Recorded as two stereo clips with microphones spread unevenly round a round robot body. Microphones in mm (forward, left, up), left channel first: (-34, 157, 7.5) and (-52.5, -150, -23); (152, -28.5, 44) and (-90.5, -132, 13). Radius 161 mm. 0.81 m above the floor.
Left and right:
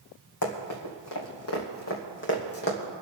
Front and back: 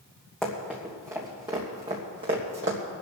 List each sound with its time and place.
0.4 s running footsteps: 110° left, 3 m; by 2.8 s 145° left, 3 m